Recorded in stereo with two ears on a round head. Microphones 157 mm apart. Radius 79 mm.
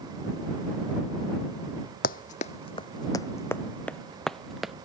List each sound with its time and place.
2.0 s running footsteps: 50° left (ahead or behind); by 4.7 s centre (ahead or behind)